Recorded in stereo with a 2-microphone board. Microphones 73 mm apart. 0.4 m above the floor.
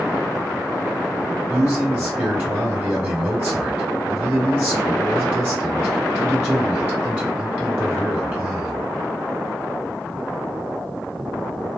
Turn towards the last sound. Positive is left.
turn(degrees=-30)  # may be behind; listen again after turning